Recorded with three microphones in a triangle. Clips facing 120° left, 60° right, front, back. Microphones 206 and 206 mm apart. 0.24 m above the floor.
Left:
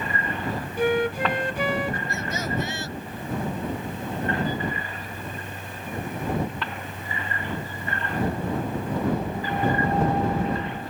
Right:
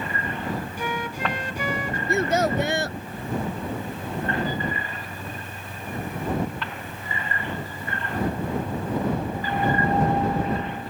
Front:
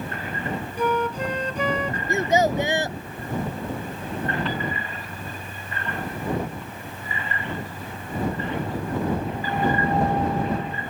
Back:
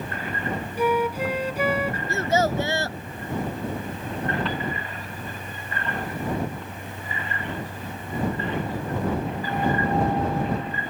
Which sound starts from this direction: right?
A child speaking, at 2.1 s.